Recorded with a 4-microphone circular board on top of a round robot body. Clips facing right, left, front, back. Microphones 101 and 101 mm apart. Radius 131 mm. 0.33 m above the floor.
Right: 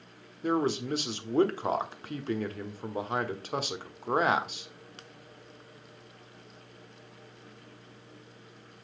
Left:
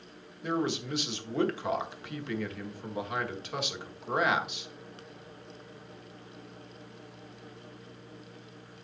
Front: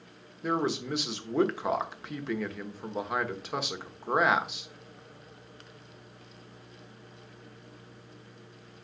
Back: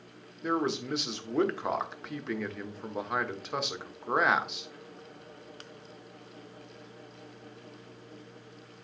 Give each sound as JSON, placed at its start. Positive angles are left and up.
{"t": 0.4, "sound": "a man speaking", "azimuth_deg": -90, "distance_m": 1.3}